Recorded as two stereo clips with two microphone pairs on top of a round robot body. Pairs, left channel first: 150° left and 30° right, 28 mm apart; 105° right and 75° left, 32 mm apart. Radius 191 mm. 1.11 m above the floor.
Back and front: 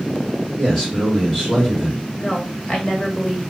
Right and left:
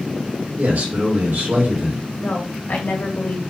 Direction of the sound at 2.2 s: 145° right.